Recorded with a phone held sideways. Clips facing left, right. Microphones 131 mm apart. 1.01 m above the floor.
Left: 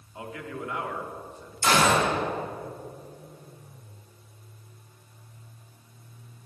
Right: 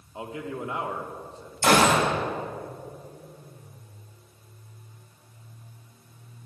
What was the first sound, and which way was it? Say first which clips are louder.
A man speaking: right 3 dB; 25° right (ahead or behind).